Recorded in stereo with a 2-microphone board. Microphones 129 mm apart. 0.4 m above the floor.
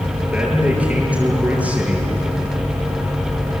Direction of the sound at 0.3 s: 10° right (ahead or behind).